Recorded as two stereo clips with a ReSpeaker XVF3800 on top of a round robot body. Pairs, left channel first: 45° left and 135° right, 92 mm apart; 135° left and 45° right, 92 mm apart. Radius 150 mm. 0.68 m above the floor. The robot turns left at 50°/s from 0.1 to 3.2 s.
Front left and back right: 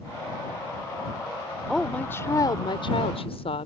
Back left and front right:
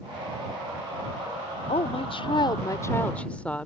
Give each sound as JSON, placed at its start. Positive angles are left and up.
{"t": 1.7, "sound": "a woman speaking", "azimuth_deg": 135}